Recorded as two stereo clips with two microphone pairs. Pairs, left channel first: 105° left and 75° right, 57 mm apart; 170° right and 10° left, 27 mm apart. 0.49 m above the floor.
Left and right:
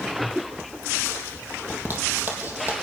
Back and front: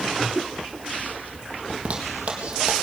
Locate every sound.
1.7 s a zipper: 25° right, 3.5 m